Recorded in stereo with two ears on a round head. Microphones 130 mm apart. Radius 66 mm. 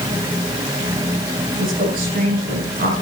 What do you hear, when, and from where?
1.6 s a woman speaking: 70° right (ahead or behind), 7.5 m